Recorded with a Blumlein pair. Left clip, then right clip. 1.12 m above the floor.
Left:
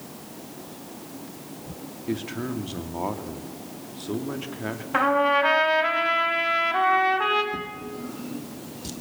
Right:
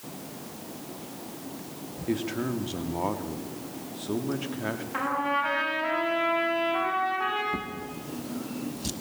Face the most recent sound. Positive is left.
turn(degrees=-15)